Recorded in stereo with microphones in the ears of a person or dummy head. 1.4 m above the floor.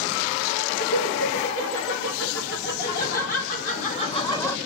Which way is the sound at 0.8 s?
70° left (ahead or behind).